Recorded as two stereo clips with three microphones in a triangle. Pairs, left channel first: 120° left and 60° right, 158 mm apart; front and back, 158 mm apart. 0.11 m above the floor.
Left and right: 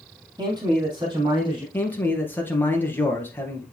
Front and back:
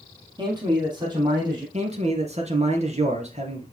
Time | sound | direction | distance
0.4 | a man speaking | 120° right | 3 m
1.7 | a man speaking | 170° right | 2.0 m